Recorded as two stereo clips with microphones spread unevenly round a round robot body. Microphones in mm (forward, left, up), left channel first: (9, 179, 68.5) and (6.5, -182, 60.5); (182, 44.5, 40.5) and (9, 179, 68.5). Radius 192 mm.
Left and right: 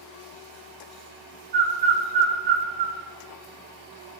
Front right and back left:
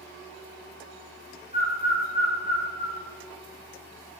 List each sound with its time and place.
1.5 s a bird: 100° right, 1.5 m